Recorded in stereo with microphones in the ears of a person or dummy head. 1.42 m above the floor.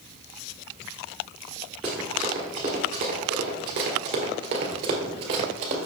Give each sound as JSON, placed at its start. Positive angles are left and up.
{"t": 1.8, "sound": "running footsteps", "side_deg": -5, "distance_m": 1.4}